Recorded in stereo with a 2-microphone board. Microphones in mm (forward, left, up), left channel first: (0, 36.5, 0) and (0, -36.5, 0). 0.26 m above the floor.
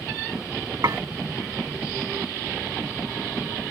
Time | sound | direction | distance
0.8 | dishes clattering | 55° right (ahead or behind) | ?